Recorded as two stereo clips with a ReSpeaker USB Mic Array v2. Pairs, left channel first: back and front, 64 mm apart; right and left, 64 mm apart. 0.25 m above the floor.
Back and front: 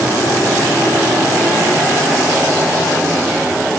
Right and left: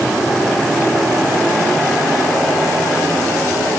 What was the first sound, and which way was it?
Only background noise.